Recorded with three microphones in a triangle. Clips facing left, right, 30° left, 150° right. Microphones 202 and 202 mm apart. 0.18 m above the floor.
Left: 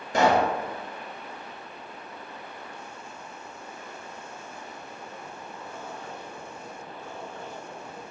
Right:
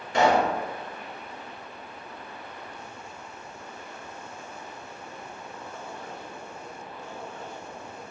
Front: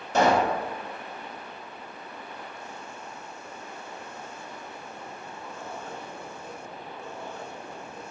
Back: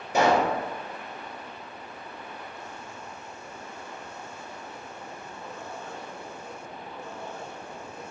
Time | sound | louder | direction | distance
0.1 | a pop | even, even | 135° left | 1.1 m